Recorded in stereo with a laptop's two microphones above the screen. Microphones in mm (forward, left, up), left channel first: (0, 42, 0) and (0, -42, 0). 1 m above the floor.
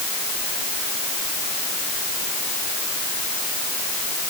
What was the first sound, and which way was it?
Only background noise.